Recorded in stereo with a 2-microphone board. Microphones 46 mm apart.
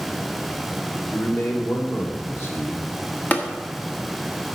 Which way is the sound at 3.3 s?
35° left (ahead or behind).